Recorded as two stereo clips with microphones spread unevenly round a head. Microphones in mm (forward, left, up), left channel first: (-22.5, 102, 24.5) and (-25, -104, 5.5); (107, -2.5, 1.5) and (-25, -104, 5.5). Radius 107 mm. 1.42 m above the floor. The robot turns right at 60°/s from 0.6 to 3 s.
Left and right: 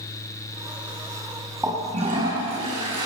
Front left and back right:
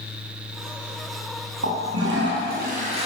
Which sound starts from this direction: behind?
A toilet flushing, at 1.6 s.